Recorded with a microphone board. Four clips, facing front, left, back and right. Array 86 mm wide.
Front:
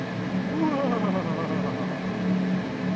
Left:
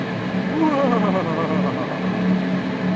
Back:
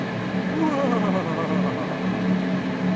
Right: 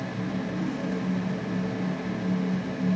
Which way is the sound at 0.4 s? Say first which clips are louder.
Left 15 dB, back 3 dB; 100° left.